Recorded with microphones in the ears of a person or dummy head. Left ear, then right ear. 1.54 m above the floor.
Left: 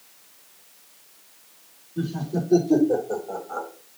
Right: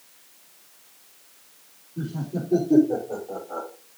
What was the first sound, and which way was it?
Laughter, 60° left (ahead or behind).